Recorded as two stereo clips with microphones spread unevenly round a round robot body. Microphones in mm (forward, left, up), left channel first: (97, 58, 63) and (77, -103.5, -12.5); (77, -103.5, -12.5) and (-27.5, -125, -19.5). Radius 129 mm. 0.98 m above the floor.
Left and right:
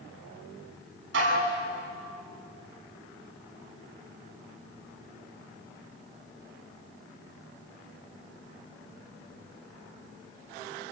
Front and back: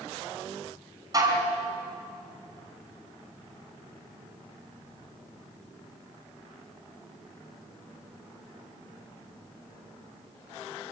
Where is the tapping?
No tapping in this recording.